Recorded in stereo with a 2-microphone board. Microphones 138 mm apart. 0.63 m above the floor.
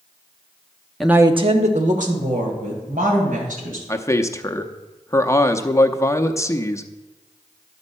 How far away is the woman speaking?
About 0.7 m.